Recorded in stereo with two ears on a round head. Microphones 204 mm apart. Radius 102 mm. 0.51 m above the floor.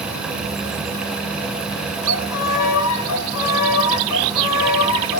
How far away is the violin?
About 2.5 m.